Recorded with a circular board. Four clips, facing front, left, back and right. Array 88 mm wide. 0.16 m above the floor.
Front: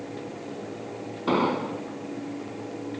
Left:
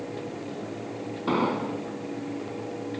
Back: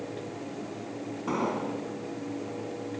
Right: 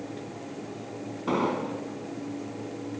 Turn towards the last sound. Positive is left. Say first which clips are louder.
# left 1 dB, front 6 dB
turn(degrees=25)